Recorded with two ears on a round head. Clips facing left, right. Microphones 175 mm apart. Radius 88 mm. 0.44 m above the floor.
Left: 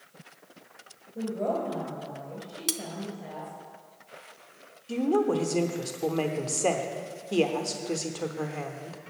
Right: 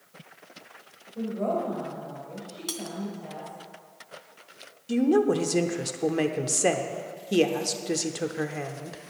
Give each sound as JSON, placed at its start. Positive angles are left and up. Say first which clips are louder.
{"t": 1.1, "sound": "a woman speaking", "louder": "right 1 dB", "side_deg": 20, "distance_m": 2.5}
{"t": 2.7, "sound": "cutlery clinking", "louder": "left 2 dB", "side_deg": 30, "distance_m": 0.6}
{"t": 4.9, "sound": "a woman speaking", "louder": "right 3 dB", "side_deg": -15, "distance_m": 0.8}